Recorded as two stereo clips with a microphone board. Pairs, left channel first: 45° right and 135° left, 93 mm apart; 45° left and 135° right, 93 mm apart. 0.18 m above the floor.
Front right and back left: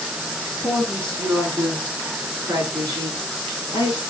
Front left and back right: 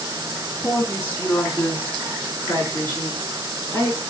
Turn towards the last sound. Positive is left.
turn(degrees=120)